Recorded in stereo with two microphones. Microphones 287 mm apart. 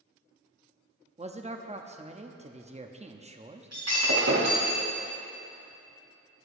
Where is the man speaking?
25° right (ahead or behind), 0.7 m.